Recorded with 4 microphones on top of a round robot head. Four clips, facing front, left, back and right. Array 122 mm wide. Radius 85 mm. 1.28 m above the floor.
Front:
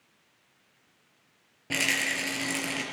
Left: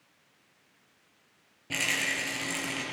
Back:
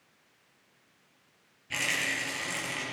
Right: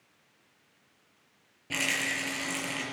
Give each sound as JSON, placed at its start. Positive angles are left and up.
{"t": 1.7, "sound": "a rattle", "azimuth_deg": 5, "distance_m": 5.5}